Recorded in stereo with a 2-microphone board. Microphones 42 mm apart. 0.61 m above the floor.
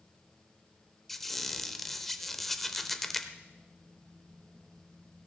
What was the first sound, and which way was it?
A squeak, 5° left (ahead or behind).